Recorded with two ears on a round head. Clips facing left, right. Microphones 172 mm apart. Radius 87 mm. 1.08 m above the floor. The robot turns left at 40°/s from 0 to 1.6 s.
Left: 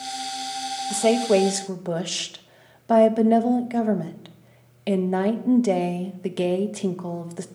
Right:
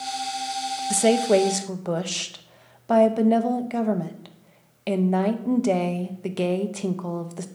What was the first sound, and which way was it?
A woman speaking, 20° right (ahead or behind).